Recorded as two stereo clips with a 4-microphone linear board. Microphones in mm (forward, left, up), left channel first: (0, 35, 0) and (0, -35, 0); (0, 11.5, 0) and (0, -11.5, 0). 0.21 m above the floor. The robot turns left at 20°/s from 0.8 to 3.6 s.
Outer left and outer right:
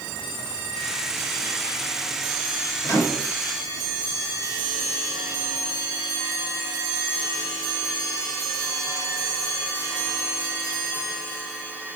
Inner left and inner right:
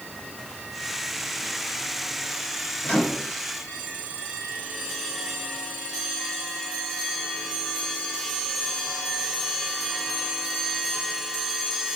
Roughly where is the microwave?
Left.